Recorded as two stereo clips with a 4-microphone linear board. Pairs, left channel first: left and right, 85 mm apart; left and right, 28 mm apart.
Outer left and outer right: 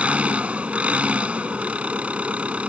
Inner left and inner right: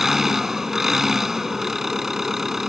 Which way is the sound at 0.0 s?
15° right (ahead or behind).